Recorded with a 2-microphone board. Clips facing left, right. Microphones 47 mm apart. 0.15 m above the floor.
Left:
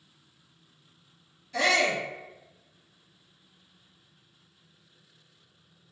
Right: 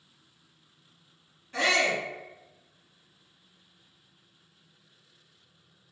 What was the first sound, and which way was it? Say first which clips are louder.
A shout: left 1 dB; 35° right (ahead or behind).